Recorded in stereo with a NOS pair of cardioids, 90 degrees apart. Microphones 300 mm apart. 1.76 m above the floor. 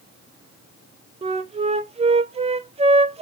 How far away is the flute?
About 0.6 m.